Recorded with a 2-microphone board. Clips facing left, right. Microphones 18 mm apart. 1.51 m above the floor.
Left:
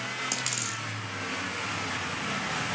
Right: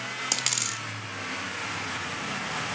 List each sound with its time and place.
0.3 s a dropped coin: 20° right (ahead or behind), 1.2 m